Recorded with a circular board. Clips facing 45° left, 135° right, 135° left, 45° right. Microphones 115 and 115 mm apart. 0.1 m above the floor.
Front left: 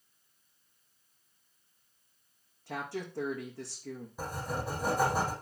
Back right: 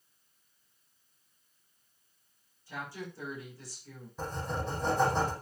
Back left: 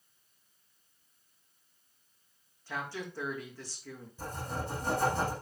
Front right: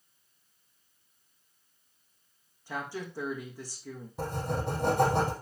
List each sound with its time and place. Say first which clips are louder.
2.7 s a woman speaking: front left 4 dB, front right 2 dB; 30° left, 5 m
4.2 s writing: back right 2 dB, front right 6 dB; 35° right, 5 m